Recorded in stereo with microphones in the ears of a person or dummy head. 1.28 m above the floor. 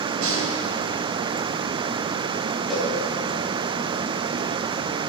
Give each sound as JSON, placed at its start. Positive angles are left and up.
{"t": 0.2, "sound": "a snare drum", "side_deg": -85, "distance_m": 4.0}
{"t": 2.7, "sound": "a cowbell", "side_deg": -5, "distance_m": 3.0}